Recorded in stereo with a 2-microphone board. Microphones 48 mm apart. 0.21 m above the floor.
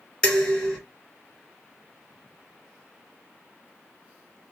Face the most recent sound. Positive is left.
turn(degrees=15)  # may be behind; listen again after turning